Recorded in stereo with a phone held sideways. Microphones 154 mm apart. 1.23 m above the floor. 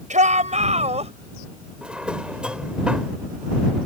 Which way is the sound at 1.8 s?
5° right (ahead or behind).